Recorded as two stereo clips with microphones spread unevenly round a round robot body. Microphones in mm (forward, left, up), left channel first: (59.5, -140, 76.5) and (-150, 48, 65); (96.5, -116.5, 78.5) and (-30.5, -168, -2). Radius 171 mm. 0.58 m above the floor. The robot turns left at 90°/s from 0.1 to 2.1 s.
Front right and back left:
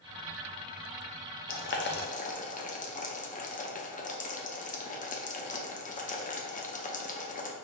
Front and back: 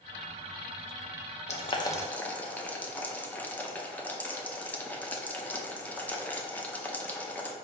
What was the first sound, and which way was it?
Boiling, 40° right.